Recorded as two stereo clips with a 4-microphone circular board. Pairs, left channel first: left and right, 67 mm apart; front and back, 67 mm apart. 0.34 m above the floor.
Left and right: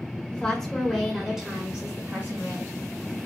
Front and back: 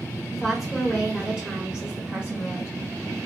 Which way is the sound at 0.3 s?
95° left.